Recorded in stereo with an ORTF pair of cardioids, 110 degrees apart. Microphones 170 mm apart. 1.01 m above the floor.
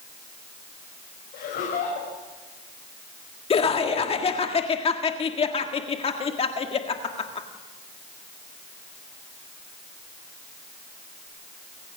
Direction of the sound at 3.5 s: 35° left.